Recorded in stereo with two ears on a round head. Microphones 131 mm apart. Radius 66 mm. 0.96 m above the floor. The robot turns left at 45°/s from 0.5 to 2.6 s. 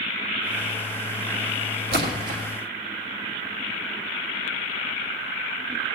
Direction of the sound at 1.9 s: 75° right (ahead or behind).